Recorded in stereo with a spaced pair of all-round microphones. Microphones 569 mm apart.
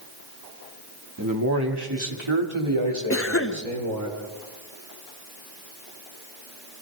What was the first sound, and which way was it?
A man speaking, 30° right (ahead or behind).